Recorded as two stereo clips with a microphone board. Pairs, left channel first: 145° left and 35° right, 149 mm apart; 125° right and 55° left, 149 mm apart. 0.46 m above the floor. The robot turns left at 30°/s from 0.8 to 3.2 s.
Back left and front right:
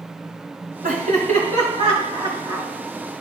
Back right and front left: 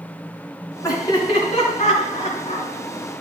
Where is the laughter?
55° right, 4.5 m; by 2.7 s 110° right, 4.5 m.